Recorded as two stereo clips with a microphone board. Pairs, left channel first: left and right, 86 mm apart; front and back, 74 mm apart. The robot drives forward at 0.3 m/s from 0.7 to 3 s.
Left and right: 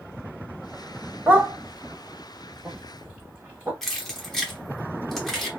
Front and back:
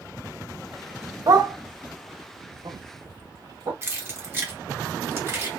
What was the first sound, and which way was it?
A dog barking, 155° right.